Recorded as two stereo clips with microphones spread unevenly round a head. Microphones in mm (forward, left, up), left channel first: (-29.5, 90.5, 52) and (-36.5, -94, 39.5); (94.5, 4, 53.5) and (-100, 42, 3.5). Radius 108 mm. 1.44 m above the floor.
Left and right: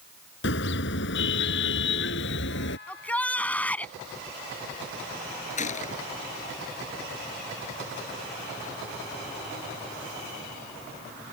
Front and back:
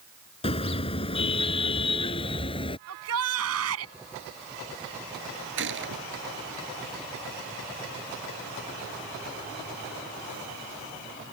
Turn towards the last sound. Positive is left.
turn(degrees=140)